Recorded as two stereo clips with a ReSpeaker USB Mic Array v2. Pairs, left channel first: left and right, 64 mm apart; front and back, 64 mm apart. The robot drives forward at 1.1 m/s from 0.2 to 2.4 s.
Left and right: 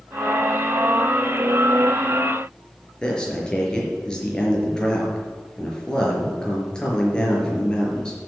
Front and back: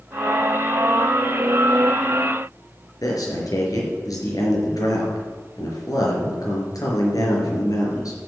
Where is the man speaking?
10° left, 4.5 m.